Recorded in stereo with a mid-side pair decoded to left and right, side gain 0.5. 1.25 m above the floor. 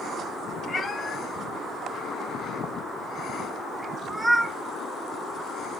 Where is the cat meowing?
35° left, 2.0 m; by 4.6 s 20° right, 2.5 m.